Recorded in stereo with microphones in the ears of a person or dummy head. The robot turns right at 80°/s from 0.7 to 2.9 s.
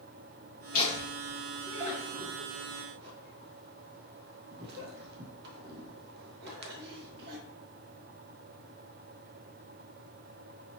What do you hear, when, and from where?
0.7 s laughter: 45° left (ahead or behind), 1.3 m; by 7.4 s 55° right (ahead or behind), 1.3 m